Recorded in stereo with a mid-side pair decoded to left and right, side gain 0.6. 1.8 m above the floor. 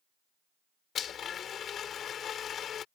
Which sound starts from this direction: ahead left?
A blender, at 0.9 s.